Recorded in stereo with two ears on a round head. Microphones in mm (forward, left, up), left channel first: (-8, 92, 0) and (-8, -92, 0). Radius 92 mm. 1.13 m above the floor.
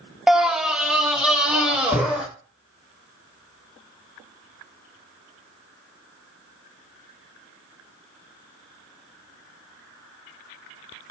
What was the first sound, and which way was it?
A scream, 5° right (ahead or behind).